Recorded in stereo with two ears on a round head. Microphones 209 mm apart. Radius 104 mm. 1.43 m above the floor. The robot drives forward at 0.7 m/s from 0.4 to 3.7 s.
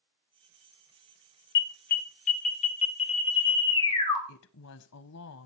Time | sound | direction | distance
1.6 | an alarm | 50° left (ahead or behind) | 1.1 m
4.3 | a woman speaking | 70° left (ahead or behind) | 0.8 m